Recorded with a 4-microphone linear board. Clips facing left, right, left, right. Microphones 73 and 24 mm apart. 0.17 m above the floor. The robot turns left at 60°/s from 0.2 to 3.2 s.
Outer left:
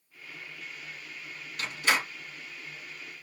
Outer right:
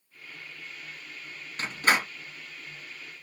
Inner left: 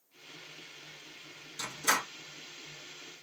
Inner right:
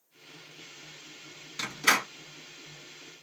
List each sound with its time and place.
1.6 s a door slam: 35° right (ahead or behind), 1.6 m; by 2.1 s 55° right (ahead or behind), 1.6 m